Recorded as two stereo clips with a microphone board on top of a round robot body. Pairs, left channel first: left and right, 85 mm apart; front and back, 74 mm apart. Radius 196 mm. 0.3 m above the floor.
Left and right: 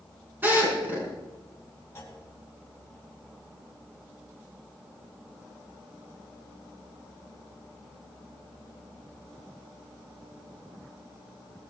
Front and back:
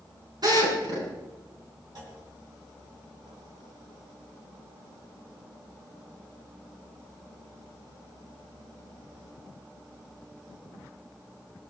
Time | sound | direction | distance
0.4 | a drill | 155° right | 7 m
1.9 | a clunk | 150° left | 4 m